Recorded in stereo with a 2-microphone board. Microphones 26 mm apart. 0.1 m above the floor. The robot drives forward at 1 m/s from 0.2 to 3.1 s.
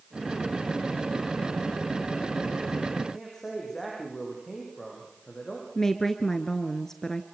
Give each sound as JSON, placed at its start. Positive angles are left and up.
{"t": 3.1, "sound": "a man speaking", "side_deg": 15, "distance_m": 7.0}
{"t": 5.8, "sound": "a woman speaking", "side_deg": 20, "distance_m": 1.2}